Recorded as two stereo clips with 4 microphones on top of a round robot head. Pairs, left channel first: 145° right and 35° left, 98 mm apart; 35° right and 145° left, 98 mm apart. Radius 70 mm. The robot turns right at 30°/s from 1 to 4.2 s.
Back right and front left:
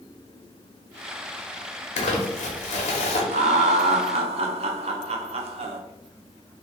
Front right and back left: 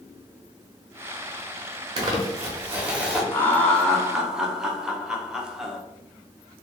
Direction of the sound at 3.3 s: 35° left.